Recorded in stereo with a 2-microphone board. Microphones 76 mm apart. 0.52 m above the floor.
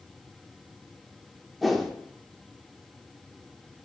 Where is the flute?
I don't hear a flute.